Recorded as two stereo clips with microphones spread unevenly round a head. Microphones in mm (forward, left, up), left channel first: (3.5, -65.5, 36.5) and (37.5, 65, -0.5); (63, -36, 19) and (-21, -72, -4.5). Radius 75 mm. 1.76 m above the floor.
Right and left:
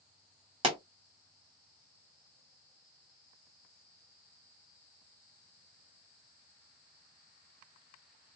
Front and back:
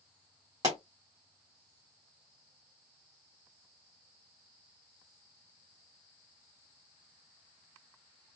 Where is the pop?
135° left, 1.8 m.